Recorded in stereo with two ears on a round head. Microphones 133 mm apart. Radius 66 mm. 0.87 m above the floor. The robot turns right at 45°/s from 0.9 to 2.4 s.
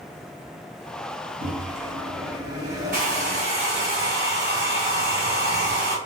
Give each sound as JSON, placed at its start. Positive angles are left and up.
{"t": 1.4, "sound": "a microwave", "azimuth_deg": -70, "distance_m": 0.7}
{"t": 2.9, "sound": "a hair dryer", "side_deg": -60, "distance_m": 1.5}